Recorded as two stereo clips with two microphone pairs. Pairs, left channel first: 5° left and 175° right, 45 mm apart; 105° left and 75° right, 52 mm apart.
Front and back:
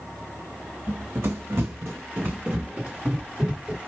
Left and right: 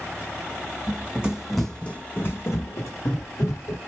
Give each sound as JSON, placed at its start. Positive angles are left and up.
{"t": 0.9, "sound": "running footsteps", "azimuth_deg": -140, "distance_m": 0.9}